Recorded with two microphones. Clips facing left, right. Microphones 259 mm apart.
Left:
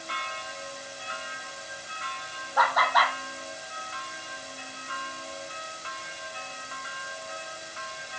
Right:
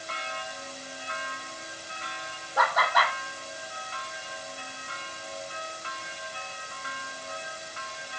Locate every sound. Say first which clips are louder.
2.6 s laughter: even; 25° right (ahead or behind), 5.5 m